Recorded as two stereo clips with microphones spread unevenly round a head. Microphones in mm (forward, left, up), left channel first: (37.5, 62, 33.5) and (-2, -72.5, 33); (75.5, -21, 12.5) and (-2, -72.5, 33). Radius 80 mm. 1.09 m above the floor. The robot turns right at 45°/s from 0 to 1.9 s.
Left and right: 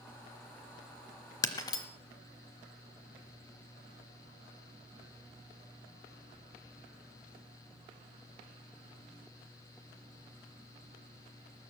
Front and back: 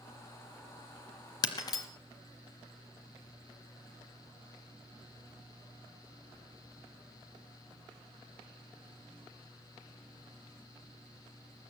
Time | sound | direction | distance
1.4 | breaking glass | 45° left | 1.0 m